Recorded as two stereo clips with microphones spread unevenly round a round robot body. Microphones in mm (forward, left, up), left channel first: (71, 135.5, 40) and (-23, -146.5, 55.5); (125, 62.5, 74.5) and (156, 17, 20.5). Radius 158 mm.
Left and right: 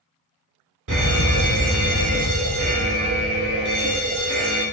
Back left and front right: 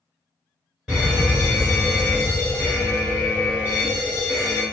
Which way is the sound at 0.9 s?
115° right.